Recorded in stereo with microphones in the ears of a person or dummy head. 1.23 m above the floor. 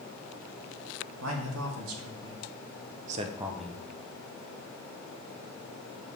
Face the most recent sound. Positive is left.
turn(degrees=25)  # may be behind; listen again after turning